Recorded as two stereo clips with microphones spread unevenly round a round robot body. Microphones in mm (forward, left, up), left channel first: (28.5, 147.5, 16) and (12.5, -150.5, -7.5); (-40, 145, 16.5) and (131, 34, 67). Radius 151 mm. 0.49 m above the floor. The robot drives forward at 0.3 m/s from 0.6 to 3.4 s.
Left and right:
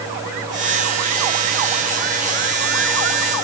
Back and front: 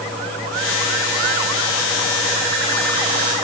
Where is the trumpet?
No trumpet in this recording.